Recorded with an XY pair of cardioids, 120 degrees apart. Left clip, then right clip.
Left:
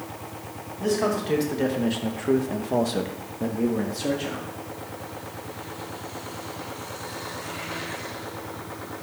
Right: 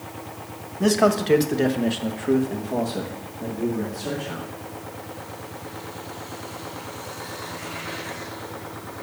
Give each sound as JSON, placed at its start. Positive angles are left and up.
{"t": 0.8, "sound": "a man speaking", "azimuth_deg": -50, "distance_m": 1.3}